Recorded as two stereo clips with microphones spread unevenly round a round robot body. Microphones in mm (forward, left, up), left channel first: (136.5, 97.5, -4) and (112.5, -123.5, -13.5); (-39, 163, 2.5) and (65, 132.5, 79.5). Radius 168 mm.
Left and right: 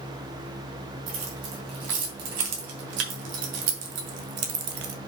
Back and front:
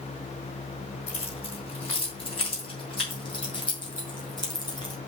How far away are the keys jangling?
About 3 m.